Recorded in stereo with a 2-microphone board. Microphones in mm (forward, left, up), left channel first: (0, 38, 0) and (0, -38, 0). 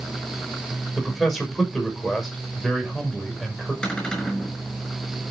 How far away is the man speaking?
About 6 m.